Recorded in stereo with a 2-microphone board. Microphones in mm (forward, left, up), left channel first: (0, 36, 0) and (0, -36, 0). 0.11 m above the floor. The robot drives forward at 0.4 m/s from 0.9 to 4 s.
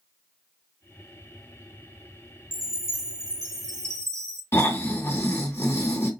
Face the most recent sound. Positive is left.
turn(degrees=35)  # may be behind; listen again after turning